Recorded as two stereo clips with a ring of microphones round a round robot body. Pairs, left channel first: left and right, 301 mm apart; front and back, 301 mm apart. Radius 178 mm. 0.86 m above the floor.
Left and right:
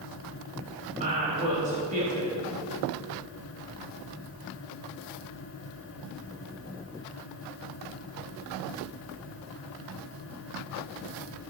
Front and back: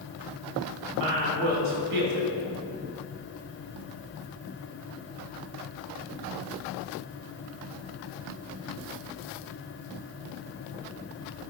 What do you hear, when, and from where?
0.9 s a woman speaking: 160° right, 4 m